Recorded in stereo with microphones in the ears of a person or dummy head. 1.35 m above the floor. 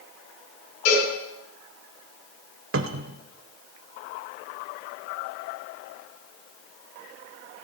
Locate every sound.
0.8 s a cowbell: 55° left (ahead or behind), 8 m
2.7 s a cupboard door: 65° right (ahead or behind), 0.8 m